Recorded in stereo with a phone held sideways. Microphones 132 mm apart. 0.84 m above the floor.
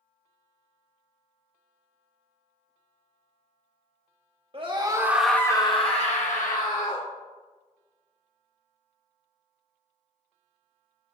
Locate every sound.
4.5 s a scream: 40° right (ahead or behind), 1.5 m; by 7.1 s 75° left (ahead or behind), 3 m